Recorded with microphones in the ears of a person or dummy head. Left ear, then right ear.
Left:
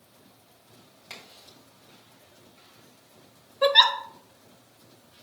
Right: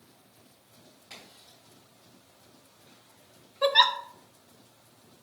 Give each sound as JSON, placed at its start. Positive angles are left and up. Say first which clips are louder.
{"t": 1.1, "sound": "a crack", "louder": "left 4 dB", "side_deg": 50, "distance_m": 3.5}
{"t": 3.6, "sound": "a giggle", "louder": "left 3 dB", "side_deg": 5, "distance_m": 0.7}